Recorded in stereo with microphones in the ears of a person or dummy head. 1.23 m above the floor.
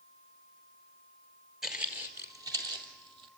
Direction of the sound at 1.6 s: Centre (ahead or behind).